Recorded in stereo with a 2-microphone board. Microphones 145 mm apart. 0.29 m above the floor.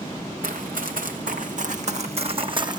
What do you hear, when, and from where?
0.4 s running footsteps: 80° right, 1.8 m; by 2.8 s 30° right (ahead or behind), 1.1 m